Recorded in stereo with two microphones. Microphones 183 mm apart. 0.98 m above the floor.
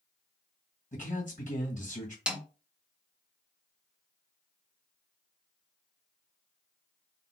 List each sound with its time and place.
0.9 s a man speaking: 45° left (ahead or behind), 1.7 m
2.3 s a snare drum: 5° right (ahead or behind), 0.7 m